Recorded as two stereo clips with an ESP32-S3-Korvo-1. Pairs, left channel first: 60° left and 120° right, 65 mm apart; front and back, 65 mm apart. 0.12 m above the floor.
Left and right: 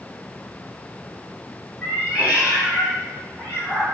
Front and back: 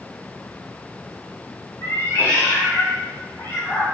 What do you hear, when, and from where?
1.8 s a cat meowing: 45° right, 1.2 m; by 3.9 s 75° right, 2.5 m